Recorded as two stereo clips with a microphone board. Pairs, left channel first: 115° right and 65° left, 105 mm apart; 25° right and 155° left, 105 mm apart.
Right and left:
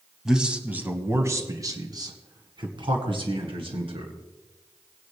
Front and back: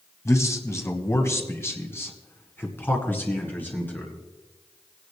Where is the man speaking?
15° right, 1.3 m; by 4.1 s 50° left, 2.5 m.